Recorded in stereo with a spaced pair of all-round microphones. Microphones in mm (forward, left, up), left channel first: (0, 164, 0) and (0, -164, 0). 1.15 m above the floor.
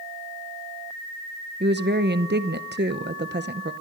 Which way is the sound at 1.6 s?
30° right (ahead or behind).